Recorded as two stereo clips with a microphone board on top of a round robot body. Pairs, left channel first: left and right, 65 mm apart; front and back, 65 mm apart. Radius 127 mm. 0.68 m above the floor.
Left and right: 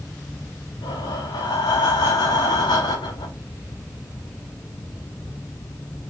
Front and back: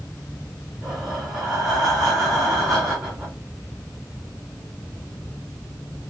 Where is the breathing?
95° left, 0.5 m.